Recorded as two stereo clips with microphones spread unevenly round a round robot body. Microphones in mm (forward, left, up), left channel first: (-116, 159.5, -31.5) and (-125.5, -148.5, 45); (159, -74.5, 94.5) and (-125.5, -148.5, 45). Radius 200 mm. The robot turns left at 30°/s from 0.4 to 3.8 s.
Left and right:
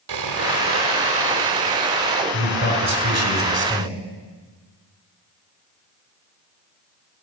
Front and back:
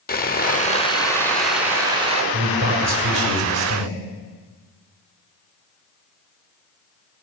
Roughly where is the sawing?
Ahead right.